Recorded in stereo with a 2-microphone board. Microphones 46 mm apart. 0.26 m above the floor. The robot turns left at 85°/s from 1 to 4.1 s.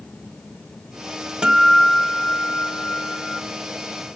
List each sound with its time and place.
1.4 s a guitar: 145° right, 0.9 m; by 3.4 s 50° left, 0.9 m